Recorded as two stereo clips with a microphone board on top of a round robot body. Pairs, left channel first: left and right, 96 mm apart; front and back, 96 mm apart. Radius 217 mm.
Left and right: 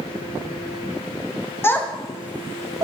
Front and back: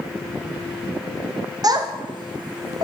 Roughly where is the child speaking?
Behind left.